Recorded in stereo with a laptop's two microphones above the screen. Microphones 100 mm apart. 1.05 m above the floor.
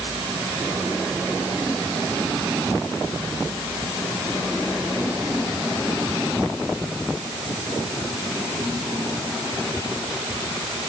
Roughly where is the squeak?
I don't hear a squeak.